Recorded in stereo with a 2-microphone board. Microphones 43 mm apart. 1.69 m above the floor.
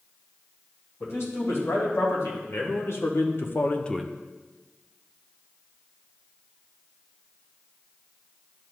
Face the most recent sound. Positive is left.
turn(degrees=-10)  # may be behind; listen again after turning